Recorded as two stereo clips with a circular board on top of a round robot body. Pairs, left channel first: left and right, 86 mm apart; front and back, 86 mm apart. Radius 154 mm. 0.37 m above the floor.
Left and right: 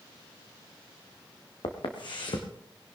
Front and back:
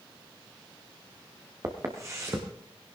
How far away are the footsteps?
About 2 m.